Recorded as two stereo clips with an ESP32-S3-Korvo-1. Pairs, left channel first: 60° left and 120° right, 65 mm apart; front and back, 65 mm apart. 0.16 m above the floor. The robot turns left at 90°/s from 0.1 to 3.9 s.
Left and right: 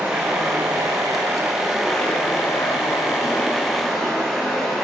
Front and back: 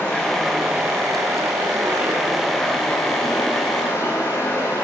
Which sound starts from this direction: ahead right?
Running water, at 0.0 s.